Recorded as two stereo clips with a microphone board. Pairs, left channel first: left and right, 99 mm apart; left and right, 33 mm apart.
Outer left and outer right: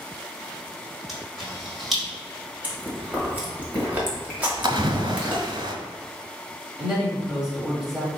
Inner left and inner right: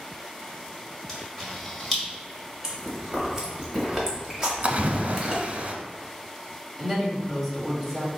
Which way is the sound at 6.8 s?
5° right (ahead or behind).